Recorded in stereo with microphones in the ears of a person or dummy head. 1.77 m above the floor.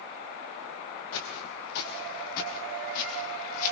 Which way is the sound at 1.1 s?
60° left (ahead or behind).